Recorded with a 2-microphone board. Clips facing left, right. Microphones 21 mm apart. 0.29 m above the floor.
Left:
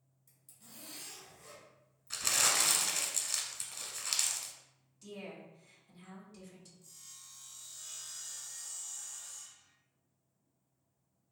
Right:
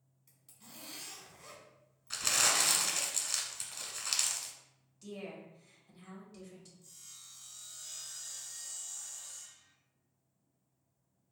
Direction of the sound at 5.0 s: 15° right (ahead or behind).